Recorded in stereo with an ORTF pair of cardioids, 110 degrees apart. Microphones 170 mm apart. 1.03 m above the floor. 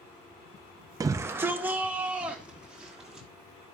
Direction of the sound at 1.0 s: 20° right.